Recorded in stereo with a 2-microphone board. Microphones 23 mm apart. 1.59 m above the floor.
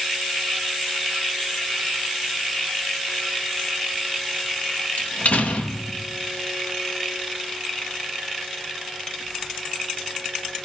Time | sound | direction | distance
5.0 | a door slam | 80° left | 2 m